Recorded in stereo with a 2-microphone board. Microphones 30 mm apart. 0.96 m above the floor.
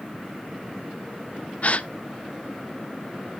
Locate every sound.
1.6 s a gasp: 45° left (ahead or behind), 0.6 m